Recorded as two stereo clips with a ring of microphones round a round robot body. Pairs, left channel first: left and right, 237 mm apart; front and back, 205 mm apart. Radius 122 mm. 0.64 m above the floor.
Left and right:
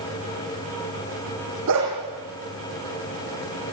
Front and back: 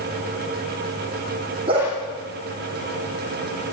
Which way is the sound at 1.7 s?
110° right.